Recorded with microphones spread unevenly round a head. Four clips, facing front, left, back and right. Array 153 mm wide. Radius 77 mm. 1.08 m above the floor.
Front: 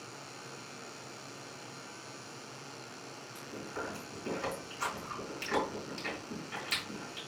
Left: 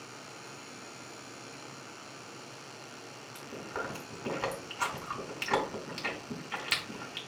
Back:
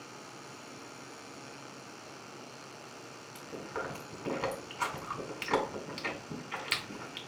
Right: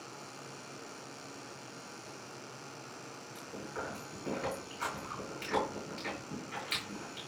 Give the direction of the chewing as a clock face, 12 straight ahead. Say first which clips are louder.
Left 3 dB, back 2 dB; 8 o'clock.